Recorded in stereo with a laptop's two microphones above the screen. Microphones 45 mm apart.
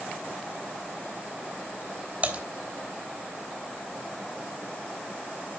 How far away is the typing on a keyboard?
About 3 m.